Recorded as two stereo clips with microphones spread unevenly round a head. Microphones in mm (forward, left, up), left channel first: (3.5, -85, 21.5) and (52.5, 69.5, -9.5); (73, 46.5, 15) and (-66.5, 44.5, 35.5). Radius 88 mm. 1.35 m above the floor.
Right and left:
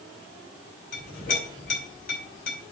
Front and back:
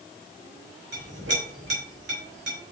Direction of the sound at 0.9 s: 150° right.